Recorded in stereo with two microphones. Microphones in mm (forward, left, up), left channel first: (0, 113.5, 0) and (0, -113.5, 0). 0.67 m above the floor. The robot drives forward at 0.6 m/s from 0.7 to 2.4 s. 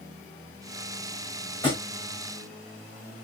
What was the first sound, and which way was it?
A thud, 20° left (ahead or behind).